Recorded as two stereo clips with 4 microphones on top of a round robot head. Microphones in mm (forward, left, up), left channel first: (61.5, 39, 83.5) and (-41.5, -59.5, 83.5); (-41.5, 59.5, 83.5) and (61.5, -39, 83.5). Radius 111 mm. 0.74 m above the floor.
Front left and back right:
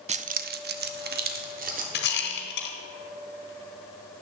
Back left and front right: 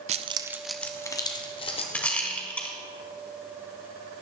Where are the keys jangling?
90° right, 0.6 m; by 1.8 s 170° right, 1.3 m.